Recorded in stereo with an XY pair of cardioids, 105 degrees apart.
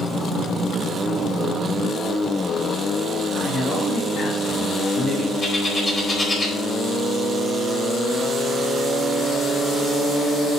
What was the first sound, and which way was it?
A man speaking, 55° left.